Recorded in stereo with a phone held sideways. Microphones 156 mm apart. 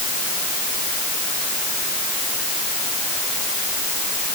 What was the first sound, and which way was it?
Only background noise.